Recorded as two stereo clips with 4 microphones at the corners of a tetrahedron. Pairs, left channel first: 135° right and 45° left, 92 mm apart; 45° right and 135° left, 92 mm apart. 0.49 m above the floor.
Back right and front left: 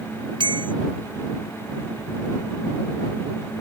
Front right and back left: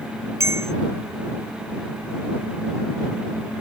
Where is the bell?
75° left.